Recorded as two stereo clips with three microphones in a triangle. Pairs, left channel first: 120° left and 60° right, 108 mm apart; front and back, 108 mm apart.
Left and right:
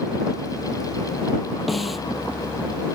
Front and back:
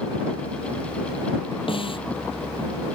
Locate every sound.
1.7 s a snare drum: 30° left